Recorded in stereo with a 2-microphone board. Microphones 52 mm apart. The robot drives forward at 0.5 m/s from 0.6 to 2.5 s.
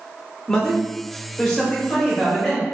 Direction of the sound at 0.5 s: 10° left (ahead or behind).